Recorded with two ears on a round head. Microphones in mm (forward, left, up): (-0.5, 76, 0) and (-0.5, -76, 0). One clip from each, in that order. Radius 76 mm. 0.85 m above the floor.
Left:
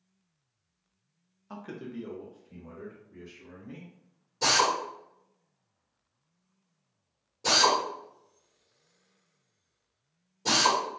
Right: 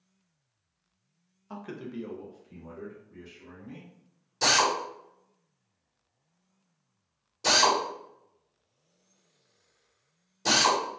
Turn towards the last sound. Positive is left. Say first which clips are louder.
# right 1 dB
turn(degrees=-50)  # may be behind; listen again after turning